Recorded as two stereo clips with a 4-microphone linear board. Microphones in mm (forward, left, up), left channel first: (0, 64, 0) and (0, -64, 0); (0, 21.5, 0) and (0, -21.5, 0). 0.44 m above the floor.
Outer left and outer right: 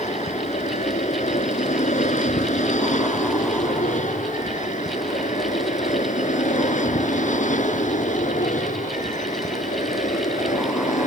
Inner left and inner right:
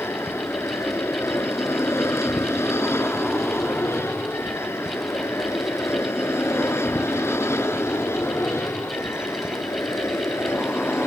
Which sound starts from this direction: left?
An aircraft, at 0.0 s.